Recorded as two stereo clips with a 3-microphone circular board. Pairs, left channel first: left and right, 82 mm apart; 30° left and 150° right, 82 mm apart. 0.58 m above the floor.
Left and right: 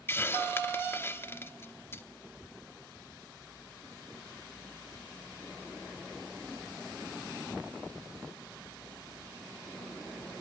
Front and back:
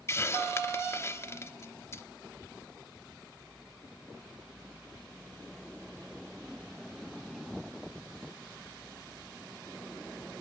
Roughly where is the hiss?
Ahead left.